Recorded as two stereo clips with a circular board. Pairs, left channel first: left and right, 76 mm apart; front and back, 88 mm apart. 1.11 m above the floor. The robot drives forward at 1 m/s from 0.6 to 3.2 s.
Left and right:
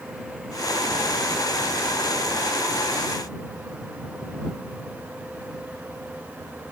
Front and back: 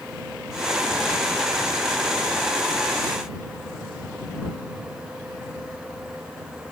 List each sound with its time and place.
Only background noise.